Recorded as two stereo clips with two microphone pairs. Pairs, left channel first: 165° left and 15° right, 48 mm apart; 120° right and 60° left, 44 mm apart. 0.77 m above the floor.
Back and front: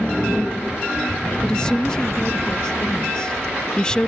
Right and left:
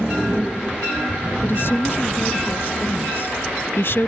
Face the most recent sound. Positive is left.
turn(degrees=-125)